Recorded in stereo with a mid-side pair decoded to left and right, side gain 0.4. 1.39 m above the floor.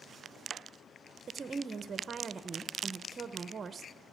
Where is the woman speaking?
45° right, 0.7 m.